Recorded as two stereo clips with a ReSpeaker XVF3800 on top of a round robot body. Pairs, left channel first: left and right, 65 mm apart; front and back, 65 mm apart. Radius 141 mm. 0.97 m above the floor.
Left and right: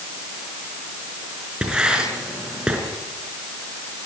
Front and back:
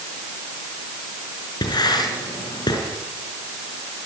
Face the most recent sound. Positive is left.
turn(degrees=-10)